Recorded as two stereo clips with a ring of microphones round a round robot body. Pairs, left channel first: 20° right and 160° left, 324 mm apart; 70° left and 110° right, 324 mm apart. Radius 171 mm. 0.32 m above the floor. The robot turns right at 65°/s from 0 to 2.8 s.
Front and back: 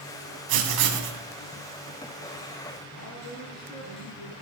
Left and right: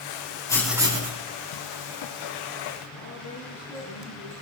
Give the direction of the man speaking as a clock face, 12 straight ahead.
11 o'clock.